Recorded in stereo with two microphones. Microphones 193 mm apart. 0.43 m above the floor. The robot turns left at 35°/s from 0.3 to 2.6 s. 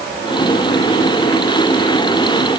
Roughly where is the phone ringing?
No phone ringing in this recording.